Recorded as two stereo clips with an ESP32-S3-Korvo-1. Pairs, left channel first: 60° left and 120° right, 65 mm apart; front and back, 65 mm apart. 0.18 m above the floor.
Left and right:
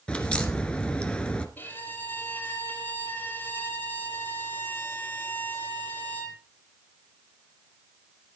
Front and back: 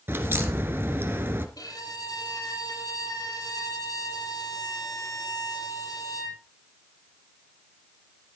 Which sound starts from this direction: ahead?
A violin, at 1.6 s.